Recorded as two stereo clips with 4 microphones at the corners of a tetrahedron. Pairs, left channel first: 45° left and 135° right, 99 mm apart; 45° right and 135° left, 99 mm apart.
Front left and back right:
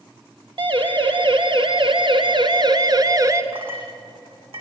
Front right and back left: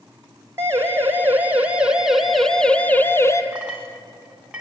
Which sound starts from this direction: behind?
A siren, at 0.6 s.